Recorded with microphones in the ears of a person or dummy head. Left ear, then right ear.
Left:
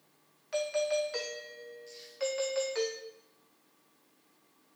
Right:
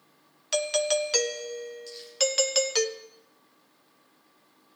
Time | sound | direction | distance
0.5 | a doorbell | 75° right (ahead or behind) | 0.8 m
1.9 | crumpling | 35° right (ahead or behind) | 8 m